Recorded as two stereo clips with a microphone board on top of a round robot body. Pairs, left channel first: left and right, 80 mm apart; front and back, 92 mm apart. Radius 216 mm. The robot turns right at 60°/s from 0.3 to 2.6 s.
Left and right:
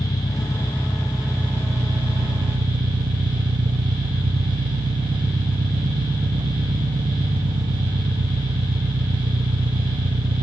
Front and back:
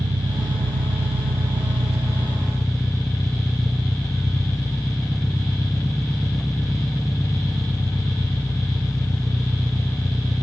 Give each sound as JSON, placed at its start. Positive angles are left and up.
{"t": 0.0, "sound": "an engine running", "azimuth_deg": 135, "distance_m": 0.8}